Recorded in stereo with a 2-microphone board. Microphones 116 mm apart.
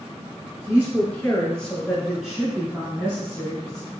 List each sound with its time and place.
0.7 s a woman speaking: 20° left (ahead or behind), 1.9 m; by 3.9 s 30° right (ahead or behind), 1.8 m